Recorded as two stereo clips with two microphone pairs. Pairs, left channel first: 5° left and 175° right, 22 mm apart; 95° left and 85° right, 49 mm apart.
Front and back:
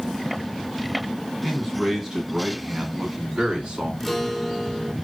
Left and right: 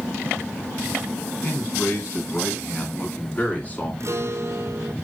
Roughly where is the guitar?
Right.